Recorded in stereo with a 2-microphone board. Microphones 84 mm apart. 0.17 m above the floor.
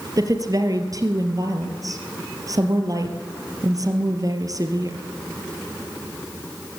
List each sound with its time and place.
0.2 s a woman speaking: 45° right (ahead or behind), 3 m